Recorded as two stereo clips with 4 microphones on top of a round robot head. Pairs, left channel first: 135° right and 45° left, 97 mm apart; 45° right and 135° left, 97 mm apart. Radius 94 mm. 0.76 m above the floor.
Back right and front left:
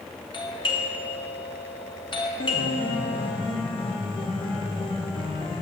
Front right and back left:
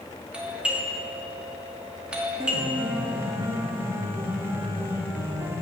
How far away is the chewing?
No chewing in this recording.